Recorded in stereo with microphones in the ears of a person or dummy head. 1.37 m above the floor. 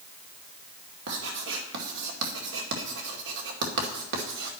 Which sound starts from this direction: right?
Writing, at 1.1 s.